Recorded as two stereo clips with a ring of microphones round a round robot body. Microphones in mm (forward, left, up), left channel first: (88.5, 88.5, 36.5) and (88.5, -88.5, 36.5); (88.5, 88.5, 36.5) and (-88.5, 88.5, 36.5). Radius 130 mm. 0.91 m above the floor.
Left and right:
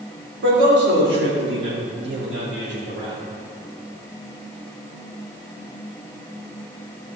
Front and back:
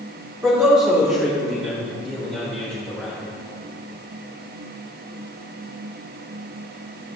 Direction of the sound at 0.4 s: 100° right.